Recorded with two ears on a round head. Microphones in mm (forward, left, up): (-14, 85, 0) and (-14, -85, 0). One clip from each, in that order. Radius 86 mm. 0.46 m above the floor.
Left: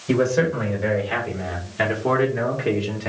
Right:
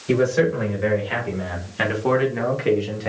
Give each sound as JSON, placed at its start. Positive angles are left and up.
{"t": 0.1, "sound": "a man speaking", "side_deg": -15, "distance_m": 2.0}